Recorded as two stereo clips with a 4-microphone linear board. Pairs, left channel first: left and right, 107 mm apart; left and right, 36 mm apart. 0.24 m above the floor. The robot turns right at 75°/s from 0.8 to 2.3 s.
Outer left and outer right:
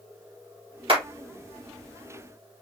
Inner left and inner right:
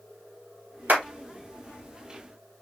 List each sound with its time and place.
0.9 s a clap: 60° right (ahead or behind), 2.5 m; by 1.0 s 65° right (ahead or behind), 2.5 m